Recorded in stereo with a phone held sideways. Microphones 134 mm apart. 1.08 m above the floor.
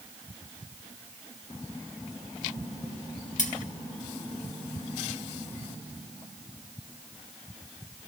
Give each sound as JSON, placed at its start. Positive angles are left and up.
{"t": 3.4, "sound": "cutlery clinking", "side_deg": 70, "distance_m": 1.4}